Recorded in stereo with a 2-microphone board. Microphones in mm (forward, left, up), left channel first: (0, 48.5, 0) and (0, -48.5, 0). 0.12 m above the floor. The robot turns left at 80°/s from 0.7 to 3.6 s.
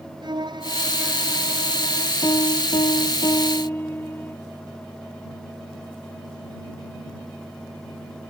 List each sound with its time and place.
0.2 s a violin: 130° right; by 2.1 s 115° left
2.2 s a piano: 135° left; by 4.4 s 25° left